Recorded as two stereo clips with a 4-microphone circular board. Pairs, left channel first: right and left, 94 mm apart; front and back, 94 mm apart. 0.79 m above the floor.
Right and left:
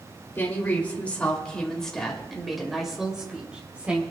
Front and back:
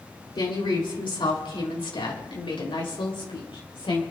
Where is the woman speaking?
25° right, 3 m; by 4.0 s 15° left, 4 m.